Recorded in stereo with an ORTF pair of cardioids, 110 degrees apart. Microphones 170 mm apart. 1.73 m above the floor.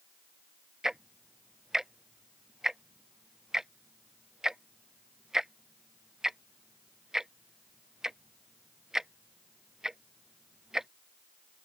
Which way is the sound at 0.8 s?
5° right.